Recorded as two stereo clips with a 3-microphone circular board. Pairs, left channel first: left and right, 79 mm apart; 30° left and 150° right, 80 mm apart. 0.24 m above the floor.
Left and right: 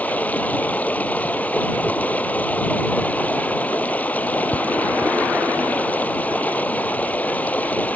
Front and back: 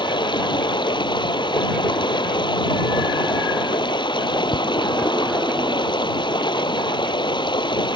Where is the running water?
20° left.